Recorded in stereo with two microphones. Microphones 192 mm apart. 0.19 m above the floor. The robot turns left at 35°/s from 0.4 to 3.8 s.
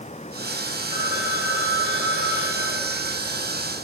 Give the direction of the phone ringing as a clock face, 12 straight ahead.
8 o'clock.